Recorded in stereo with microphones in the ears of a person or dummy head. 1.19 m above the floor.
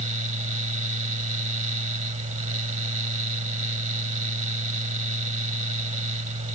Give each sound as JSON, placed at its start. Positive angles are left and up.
{"t": 0.0, "sound": "a fan", "side_deg": -40}